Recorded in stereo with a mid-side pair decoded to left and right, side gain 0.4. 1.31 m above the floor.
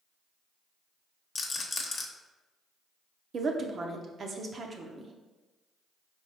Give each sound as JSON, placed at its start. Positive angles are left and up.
{"t": 1.4, "sound": "a rattle", "azimuth_deg": 45, "distance_m": 1.0}
{"t": 3.3, "sound": "a woman speaking", "azimuth_deg": -50, "distance_m": 0.9}